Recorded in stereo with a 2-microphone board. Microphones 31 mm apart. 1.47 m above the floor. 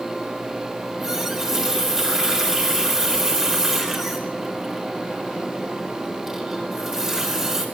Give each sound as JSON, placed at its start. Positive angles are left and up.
{"t": 0.8, "sound": "a running tap", "side_deg": -15, "distance_m": 4.0}